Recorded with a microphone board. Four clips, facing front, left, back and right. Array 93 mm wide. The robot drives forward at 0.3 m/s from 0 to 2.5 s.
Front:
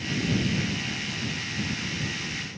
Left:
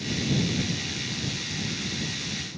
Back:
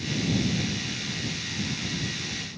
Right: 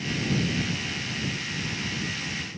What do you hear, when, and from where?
Only background noise.